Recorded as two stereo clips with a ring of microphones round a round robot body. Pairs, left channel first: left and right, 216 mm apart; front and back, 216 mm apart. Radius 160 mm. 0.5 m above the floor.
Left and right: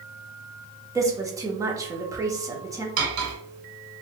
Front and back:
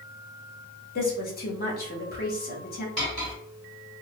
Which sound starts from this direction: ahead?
A woman speaking, at 0.9 s.